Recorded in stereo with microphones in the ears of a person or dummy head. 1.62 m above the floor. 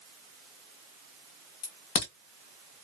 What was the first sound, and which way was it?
A crack, 35° left (ahead or behind).